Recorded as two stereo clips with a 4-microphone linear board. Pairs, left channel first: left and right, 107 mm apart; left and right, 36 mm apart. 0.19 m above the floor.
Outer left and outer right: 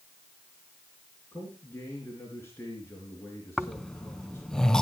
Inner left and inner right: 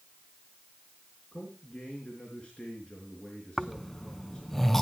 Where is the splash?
No splash in this recording.